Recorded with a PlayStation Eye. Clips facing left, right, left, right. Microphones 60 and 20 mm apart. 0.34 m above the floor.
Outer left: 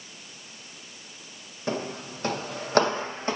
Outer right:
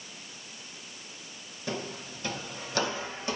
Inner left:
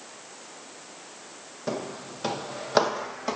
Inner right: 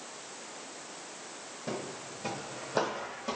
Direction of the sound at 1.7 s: 35° left (ahead or behind).